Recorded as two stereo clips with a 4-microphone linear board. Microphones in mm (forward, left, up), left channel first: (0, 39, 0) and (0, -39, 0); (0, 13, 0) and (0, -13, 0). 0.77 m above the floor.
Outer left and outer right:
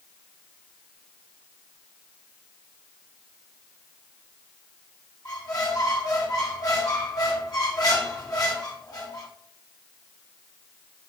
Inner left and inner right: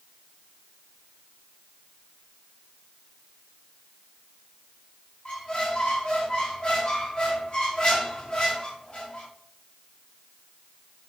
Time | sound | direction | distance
5.2 | a squeak | 50° left (ahead or behind) | 1.4 m